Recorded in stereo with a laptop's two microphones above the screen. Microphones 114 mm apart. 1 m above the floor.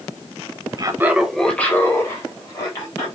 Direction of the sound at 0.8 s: 35° right (ahead or behind).